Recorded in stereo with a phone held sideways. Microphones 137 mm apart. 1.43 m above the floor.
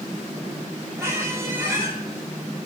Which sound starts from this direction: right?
A squeak, at 1.0 s.